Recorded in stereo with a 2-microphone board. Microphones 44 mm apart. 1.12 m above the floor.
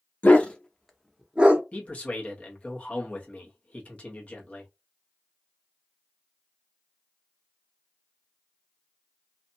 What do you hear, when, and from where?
0.2 s a dog barking: 35° left (ahead or behind), 0.7 m; by 1.6 s 35° right (ahead or behind), 0.7 m
1.7 s a man speaking: 35° left (ahead or behind), 1.1 m